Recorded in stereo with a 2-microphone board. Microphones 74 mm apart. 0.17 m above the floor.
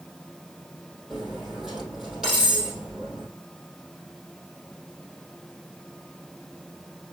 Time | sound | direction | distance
1.1 | cutlery clinking | 5° right (ahead or behind) | 3.5 m